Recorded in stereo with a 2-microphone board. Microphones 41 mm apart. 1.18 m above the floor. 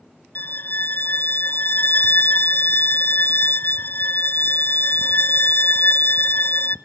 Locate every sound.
0.3 s a violin: 55° left (ahead or behind), 0.6 m